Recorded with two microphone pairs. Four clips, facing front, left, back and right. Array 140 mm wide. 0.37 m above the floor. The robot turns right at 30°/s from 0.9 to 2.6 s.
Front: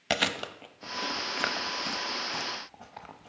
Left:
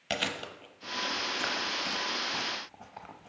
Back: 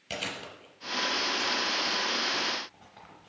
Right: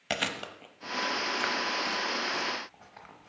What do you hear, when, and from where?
0.1 s chewing: 10° right, 0.6 m; by 3.3 s 40° left, 0.6 m